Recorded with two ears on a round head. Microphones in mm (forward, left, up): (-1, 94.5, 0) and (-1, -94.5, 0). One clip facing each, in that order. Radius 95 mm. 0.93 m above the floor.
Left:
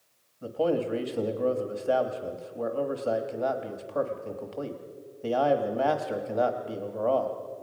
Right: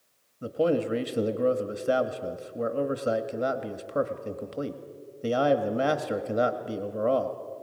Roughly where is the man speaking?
Right.